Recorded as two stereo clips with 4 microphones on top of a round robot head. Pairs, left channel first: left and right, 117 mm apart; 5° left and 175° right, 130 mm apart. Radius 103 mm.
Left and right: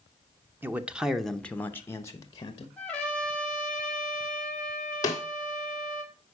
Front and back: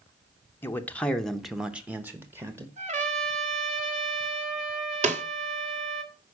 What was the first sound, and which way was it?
A man speaking, 45° right.